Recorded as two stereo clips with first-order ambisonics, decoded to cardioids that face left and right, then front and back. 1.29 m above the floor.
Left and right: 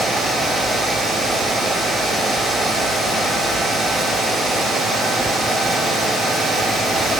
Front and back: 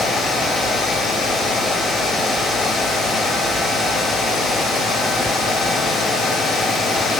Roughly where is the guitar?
No guitar in this recording.